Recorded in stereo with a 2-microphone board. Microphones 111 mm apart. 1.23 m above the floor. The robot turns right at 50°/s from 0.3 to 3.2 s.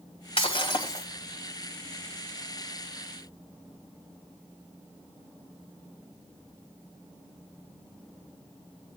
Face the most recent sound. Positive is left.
turn(degrees=-100)